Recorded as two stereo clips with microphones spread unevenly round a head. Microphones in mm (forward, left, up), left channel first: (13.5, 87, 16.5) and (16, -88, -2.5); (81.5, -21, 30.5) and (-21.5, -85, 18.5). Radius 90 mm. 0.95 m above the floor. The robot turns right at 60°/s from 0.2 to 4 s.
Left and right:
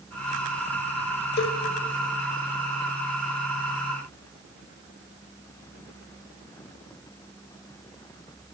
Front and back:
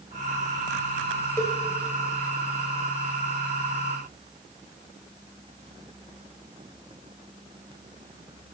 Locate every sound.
1.4 s a cowbell: 100° left, 1.1 m; by 1.6 s 115° left, 1.1 m